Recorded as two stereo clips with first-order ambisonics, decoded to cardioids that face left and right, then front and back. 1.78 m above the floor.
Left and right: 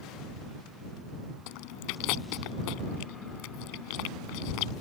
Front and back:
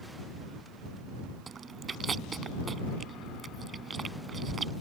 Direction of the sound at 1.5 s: 110° left.